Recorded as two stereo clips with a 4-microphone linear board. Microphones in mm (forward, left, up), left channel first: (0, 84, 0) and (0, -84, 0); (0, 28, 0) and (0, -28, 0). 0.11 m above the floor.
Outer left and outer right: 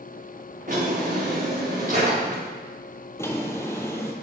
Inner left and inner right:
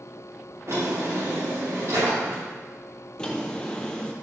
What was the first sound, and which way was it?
A drawer, 55° right (ahead or behind).